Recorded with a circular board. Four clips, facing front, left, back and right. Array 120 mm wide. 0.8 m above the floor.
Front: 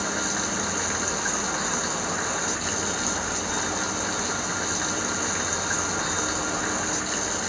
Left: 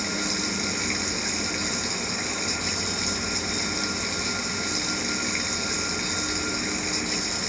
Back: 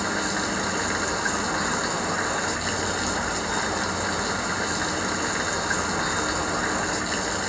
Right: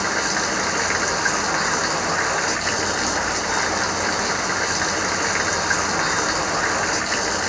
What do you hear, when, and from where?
0.0 s running water: 100° right